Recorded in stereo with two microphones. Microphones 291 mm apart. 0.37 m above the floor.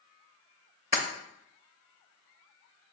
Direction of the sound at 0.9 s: 40° left (ahead or behind).